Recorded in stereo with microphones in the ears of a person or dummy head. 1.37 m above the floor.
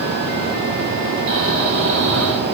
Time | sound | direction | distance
1.3 | snoring | 65° right (ahead or behind) | 4 m